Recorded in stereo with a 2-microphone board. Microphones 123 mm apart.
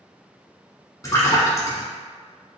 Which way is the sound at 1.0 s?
30° left (ahead or behind).